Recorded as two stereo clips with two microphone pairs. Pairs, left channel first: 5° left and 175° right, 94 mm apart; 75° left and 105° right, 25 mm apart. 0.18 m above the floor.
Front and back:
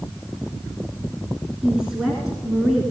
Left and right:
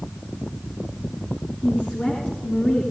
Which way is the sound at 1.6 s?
100° left.